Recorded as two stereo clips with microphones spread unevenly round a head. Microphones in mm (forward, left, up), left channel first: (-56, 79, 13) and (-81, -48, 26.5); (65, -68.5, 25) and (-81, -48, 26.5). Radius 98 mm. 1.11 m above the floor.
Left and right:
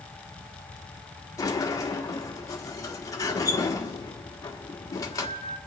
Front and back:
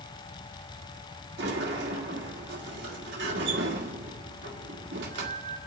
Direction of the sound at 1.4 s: 145° left.